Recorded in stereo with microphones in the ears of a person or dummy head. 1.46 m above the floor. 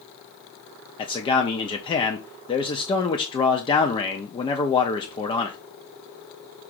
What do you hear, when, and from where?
1.0 s a man speaking: 30° left (ahead or behind), 0.5 m